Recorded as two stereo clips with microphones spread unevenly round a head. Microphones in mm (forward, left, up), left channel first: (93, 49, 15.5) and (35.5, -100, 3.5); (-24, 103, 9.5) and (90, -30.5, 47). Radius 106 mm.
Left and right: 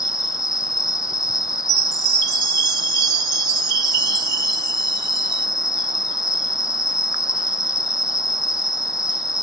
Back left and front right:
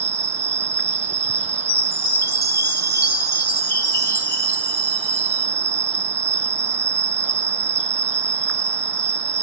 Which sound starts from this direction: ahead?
An insect, at 0.0 s.